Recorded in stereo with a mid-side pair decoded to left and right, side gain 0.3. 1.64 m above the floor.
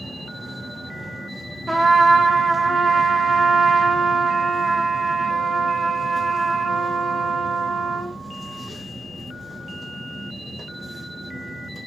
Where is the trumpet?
25° right, 0.5 m.